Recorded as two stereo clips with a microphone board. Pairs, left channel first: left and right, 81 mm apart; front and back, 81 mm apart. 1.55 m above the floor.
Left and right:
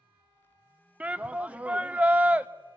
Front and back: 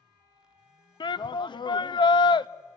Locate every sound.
1.0 s a shout: 15° right, 0.6 m